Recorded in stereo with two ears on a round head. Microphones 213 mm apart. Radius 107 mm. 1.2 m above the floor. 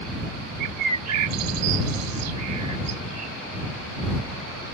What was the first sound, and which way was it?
A bird, 85° right.